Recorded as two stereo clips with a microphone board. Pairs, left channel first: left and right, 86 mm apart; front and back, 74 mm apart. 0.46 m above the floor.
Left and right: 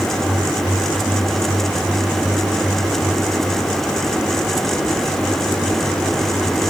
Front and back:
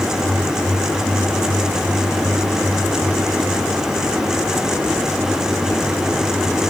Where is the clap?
I don't hear a clap.